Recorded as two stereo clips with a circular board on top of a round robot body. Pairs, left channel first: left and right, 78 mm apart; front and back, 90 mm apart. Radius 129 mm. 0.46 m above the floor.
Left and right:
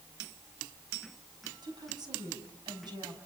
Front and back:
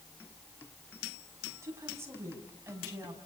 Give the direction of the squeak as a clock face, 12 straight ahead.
I don't hear a squeak.